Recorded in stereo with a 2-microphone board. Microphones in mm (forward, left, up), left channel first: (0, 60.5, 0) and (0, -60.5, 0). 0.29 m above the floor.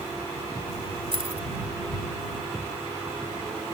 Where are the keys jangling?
50° right (ahead or behind).